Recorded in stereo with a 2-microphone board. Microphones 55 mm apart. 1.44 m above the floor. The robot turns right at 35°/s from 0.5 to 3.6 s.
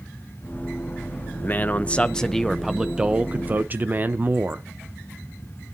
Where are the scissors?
I don't hear scissors.